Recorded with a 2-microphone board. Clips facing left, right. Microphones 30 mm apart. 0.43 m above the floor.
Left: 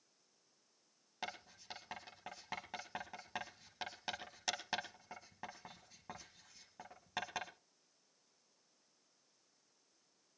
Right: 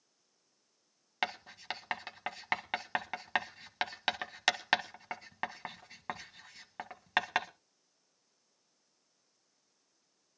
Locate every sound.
1.2 s writing: 75° right (ahead or behind), 1.1 m